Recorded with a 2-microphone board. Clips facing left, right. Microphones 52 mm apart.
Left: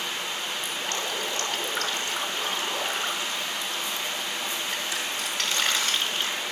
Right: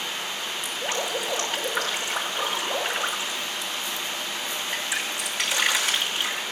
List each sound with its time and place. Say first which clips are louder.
0.6 s dripping: right 5 dB; 10° right (ahead or behind), 5 m